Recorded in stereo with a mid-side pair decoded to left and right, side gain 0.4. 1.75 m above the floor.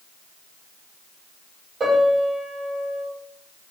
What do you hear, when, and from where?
1.8 s a piano: 50° right, 5 m